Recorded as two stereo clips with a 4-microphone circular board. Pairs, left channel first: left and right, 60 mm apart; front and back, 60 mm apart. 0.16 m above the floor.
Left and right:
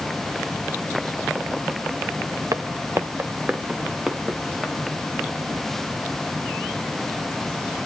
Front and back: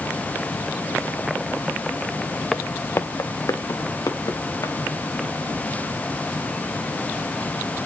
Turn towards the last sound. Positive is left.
turn(degrees=-5)